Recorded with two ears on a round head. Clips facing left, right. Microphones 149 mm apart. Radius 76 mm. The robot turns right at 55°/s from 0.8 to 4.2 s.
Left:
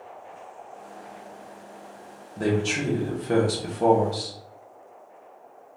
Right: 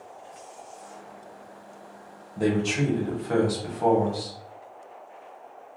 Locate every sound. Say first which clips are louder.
2.4 s a man speaking: right 1 dB; 15° right, 0.8 m; by 4.3 s 85° left, 0.8 m